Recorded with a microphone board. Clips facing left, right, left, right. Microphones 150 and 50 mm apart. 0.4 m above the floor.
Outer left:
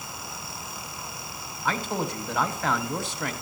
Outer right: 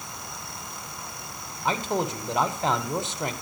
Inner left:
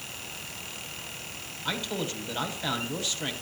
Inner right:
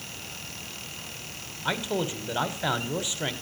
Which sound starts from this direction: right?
A man speaking, at 1.6 s.